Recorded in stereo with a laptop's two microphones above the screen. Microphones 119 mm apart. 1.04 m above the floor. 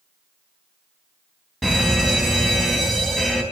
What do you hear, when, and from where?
1.6 s a fire alarm: 5° left (ahead or behind), 2.5 m